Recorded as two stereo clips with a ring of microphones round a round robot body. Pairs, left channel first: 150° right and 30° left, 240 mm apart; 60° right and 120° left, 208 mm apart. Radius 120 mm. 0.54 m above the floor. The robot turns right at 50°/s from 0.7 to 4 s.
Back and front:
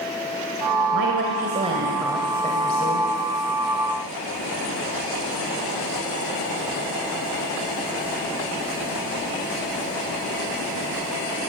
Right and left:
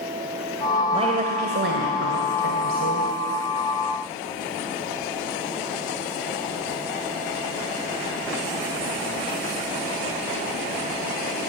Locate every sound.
0.9 s a woman speaking: 60° left, 2 m; by 3.1 s 165° left, 2 m